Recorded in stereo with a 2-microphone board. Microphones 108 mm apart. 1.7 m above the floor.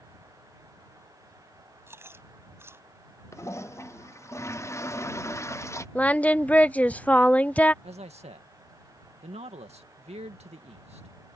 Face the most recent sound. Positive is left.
turn(degrees=-75)  # may be behind; listen again after turning